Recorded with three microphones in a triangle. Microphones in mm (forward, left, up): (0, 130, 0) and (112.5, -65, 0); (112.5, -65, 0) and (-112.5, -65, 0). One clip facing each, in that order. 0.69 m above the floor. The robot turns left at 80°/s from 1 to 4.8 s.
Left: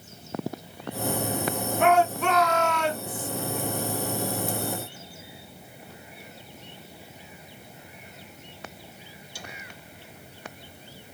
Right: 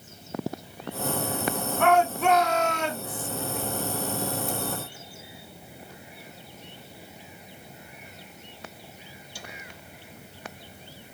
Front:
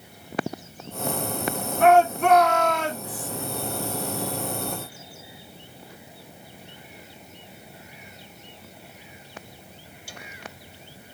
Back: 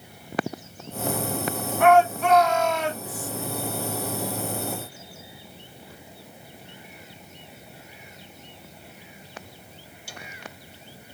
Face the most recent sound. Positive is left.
turn(degrees=175)